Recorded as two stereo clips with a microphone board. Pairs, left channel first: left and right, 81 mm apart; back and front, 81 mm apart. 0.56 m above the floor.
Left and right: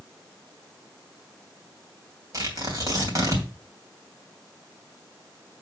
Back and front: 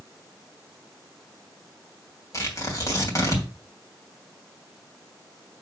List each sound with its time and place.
2.3 s tearing paper: 130° right, 3 m